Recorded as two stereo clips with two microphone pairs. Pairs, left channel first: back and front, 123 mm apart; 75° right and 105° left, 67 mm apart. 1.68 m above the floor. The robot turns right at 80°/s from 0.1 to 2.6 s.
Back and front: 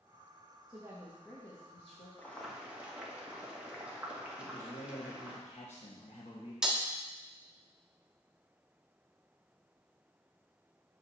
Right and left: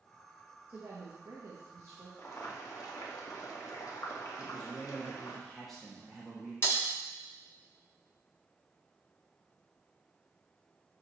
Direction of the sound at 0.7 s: 45° left.